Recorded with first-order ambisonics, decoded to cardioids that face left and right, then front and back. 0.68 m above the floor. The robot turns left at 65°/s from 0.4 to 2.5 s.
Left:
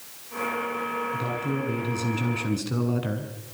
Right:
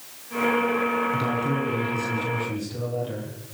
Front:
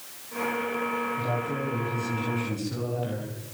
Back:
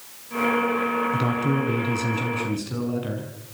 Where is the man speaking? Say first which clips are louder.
Right 4 dB, back 5 dB; 160° right, 6 m; by 3.3 s 110° left, 6 m.